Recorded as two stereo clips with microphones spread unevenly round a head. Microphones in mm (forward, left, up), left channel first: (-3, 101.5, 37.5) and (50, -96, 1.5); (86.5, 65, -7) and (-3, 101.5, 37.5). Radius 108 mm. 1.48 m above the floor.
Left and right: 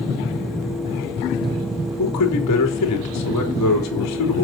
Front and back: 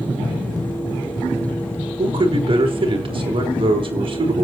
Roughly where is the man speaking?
Behind left.